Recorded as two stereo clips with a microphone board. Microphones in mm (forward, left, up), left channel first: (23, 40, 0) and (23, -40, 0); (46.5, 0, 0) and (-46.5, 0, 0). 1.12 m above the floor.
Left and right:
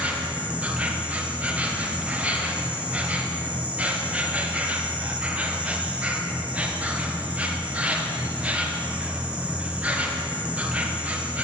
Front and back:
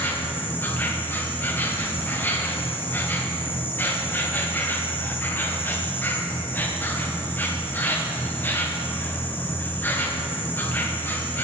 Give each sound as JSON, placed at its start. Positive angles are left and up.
{"t": 0.0, "sound": "an insect", "azimuth_deg": -40, "distance_m": 0.7}